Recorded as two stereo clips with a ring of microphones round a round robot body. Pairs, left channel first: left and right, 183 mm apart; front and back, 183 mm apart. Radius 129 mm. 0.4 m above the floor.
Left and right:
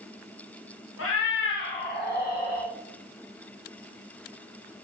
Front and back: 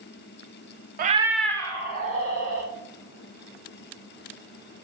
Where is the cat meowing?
135° left, 0.5 m; by 2.7 s 50° left, 2.0 m.